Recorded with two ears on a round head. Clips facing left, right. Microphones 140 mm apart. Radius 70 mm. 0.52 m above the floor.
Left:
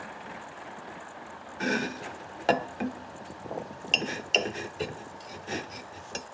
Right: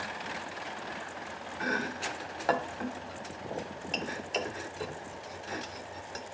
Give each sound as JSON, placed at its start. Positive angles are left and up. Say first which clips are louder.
{"t": 1.6, "sound": "chopping", "louder": "left 4 dB", "side_deg": 30, "distance_m": 0.5}